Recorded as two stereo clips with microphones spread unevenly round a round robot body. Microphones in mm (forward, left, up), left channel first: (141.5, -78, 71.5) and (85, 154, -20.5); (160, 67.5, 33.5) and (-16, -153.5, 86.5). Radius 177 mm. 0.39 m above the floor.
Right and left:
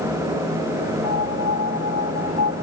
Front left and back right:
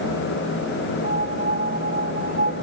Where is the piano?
70° right.